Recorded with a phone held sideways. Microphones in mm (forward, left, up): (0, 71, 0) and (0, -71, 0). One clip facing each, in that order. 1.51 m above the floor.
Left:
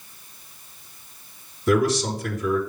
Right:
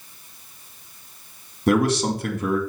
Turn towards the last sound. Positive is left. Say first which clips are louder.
# right 1 dB
turn(degrees=-60)  # may be behind; listen again after turning